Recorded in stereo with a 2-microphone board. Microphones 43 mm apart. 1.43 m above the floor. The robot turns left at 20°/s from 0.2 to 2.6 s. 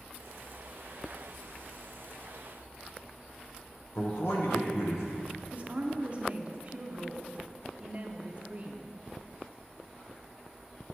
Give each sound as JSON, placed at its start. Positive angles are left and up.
{"t": 4.0, "sound": "a man speaking", "side_deg": 80, "distance_m": 0.9}
{"t": 5.5, "sound": "a woman speaking", "side_deg": -30, "distance_m": 0.6}